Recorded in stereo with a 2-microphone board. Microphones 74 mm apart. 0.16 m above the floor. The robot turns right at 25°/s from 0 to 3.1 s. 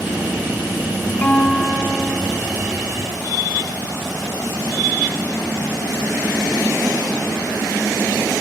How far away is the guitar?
About 0.6 m.